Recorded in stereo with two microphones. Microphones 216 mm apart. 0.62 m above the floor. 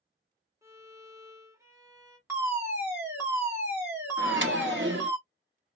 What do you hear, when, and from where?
0.6 s a violin: 15° right (ahead or behind), 0.9 m
2.3 s a fire alarm: 10° right (ahead or behind), 2 m
4.2 s a microwave: 60° right (ahead or behind), 0.8 m